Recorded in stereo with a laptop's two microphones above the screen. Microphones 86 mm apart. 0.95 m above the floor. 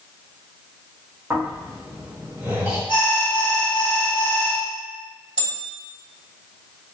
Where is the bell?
65° left (ahead or behind), 1.9 m.